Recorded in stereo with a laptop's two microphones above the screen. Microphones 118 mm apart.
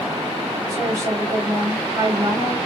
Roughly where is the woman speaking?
Right.